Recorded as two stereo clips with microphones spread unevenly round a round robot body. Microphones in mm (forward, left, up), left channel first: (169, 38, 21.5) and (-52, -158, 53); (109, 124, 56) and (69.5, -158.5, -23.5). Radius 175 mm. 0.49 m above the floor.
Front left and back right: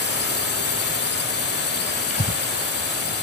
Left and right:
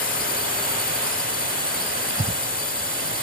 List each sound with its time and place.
0.0 s a drone: 15° left
2.1 s breathing: 20° right